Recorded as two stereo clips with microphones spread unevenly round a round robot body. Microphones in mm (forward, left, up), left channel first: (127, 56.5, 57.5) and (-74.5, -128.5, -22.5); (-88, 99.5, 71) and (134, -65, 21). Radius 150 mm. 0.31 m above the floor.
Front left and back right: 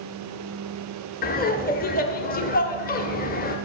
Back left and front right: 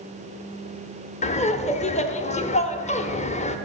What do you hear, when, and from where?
1.2 s laughter: 90° left, 0.9 m